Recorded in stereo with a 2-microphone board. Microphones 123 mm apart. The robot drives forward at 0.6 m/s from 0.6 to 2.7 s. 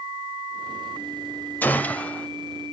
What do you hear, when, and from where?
1.6 s a gunshot: 15° left (ahead or behind), 0.6 m; by 2.3 s 10° left (ahead or behind), 0.9 m